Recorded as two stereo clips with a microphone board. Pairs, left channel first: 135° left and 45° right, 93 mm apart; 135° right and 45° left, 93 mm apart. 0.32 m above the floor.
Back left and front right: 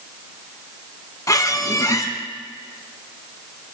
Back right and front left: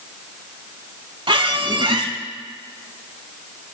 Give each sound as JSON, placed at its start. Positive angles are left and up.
{"t": 1.3, "sound": "a squeak", "azimuth_deg": 80, "distance_m": 0.5}